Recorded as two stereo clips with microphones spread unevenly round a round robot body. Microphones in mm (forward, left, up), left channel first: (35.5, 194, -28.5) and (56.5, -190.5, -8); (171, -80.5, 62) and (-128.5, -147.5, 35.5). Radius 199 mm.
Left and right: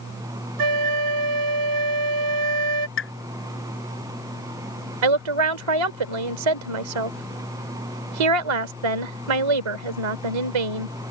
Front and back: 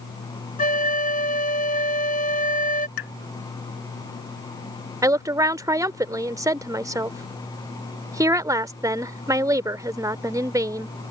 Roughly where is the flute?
Ahead right.